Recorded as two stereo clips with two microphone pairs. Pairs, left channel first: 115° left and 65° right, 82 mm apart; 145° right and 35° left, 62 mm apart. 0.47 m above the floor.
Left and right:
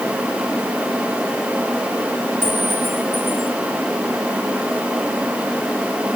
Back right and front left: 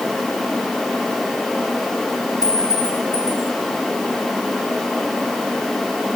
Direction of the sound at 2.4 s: 125° right.